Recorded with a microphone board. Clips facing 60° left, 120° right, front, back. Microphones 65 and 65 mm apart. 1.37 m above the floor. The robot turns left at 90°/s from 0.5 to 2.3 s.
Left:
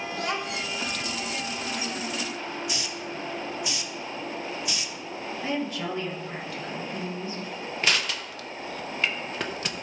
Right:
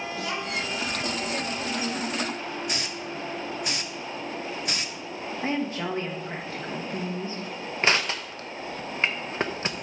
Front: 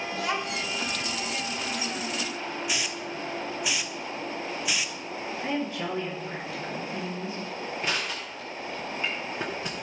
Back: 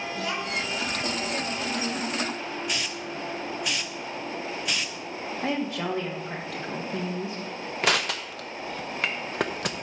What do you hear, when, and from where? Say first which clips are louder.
0.1 s a child speaking: left 2 dB, front 1 dB; 20° left, 1.8 m; by 0.7 s straight ahead, 1.8 m
2.7 s a hiss: right 1 dB, even; 85° right, 0.5 m
5.4 s a woman speaking: right 2 dB, back 2 dB; 175° right, 1.9 m
7.8 s crushing: right 3 dB, back 8 dB; straight behind, 0.8 m